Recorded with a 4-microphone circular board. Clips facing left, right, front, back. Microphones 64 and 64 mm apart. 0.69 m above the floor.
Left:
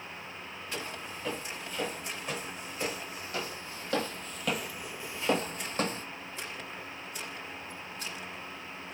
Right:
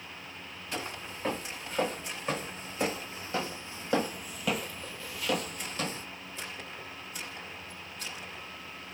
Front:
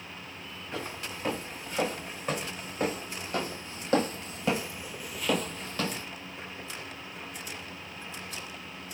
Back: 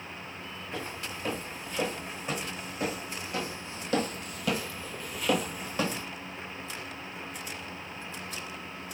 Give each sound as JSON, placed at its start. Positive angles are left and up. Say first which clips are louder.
{"t": 0.7, "sound": "footsteps", "louder": "right 2 dB, front 1 dB", "azimuth_deg": -45, "distance_m": 3.0}